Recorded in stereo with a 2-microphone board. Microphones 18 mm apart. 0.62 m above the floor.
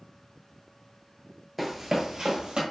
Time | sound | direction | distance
1.6 | running footsteps | centre (ahead or behind) | 0.6 m